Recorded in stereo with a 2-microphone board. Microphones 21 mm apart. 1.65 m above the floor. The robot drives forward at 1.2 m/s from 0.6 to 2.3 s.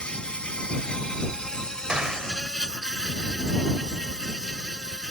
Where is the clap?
45° right (ahead or behind).